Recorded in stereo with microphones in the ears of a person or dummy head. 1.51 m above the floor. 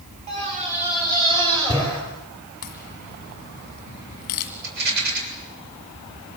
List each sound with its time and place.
0.3 s a scream: 35° right (ahead or behind), 6 m; by 2.0 s 30° right (ahead or behind), 8 m
2.6 s a crack: 35° left (ahead or behind), 1.6 m
4.6 s a rattle: 55° right (ahead or behind), 7 m